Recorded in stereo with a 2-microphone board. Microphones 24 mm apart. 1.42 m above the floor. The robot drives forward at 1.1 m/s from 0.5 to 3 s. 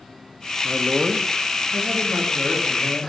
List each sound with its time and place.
0.6 s a man speaking: 60° right (ahead or behind), 0.7 m; by 3.1 s 15° right (ahead or behind), 3 m